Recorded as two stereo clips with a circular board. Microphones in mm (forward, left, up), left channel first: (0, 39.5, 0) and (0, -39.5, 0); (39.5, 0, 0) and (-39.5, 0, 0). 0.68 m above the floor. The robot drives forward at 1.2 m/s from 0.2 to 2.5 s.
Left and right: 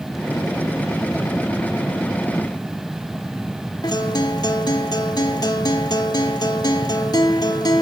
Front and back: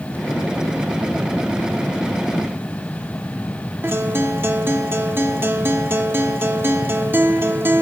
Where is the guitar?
120° left, 1.1 m.